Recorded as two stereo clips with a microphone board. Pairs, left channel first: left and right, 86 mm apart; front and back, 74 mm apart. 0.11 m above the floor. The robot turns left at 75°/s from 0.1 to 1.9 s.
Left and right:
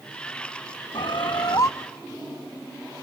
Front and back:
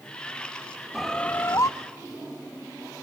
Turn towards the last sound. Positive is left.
turn(degrees=20)